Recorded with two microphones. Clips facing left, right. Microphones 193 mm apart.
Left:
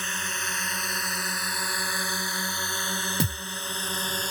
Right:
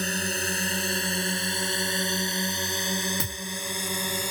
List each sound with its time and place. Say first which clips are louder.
0.0 s a drone: right 8 dB; 40° right (ahead or behind); by 4.3 s 10° right (ahead or behind)
3.2 s a thud: left 6 dB; 30° left (ahead or behind)